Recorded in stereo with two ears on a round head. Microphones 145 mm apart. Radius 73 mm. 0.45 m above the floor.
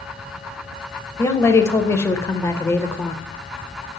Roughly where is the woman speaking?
Centre.